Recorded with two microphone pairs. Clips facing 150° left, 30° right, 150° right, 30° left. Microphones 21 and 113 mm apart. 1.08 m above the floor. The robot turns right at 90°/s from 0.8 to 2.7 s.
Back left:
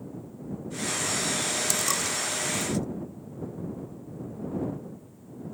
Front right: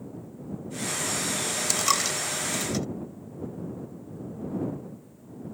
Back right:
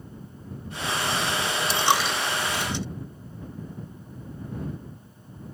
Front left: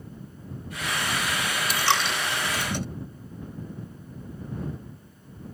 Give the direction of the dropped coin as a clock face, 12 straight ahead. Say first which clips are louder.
Front right 2 dB, back right 2 dB; 3 o'clock.